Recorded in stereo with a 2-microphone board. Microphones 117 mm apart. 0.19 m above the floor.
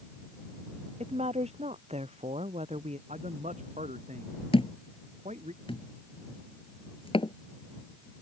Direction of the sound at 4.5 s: 50° left (ahead or behind).